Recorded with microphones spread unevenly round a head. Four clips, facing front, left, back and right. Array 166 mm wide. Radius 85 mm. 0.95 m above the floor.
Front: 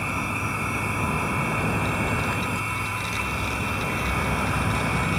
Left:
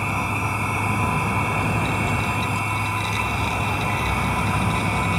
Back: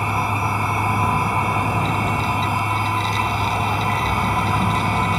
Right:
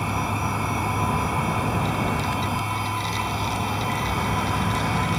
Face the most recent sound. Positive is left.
turn(degrees=180)